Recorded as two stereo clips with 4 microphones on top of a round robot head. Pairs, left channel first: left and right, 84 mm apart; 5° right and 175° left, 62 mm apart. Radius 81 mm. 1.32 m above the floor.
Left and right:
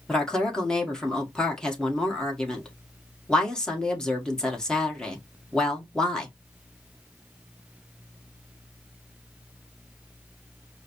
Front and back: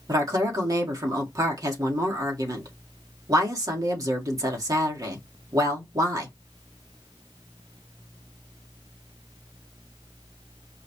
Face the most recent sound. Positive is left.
turn(degrees=170)